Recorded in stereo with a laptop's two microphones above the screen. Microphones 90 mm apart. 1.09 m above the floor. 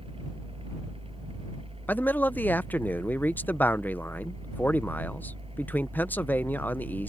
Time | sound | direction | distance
0.0 | a fan | 85° right | ?
1.9 | a man speaking | 20° left (ahead or behind) | ?